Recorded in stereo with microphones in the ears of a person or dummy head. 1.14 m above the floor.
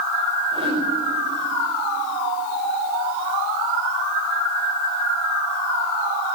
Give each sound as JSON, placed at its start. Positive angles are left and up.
{"t": 0.5, "sound": "a whoosh", "side_deg": -30, "distance_m": 5.0}